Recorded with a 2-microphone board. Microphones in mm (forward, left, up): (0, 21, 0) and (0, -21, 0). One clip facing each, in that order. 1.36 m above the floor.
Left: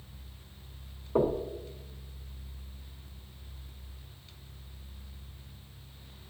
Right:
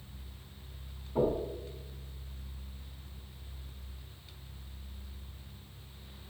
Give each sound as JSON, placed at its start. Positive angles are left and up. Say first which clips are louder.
{"t": 1.1, "sound": "knocking", "louder": "left 2 dB", "side_deg": 80, "distance_m": 1.1}